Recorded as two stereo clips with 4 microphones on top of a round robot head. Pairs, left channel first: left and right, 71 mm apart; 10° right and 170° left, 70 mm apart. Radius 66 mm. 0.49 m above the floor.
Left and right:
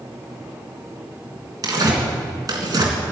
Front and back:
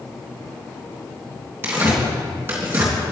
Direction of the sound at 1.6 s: 125° right.